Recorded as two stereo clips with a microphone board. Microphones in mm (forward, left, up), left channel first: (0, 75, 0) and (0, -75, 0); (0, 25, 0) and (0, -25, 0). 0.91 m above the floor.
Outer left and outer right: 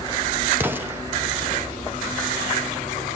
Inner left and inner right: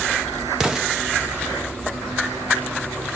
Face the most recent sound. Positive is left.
turn(degrees=-15)  # may be behind; listen again after turning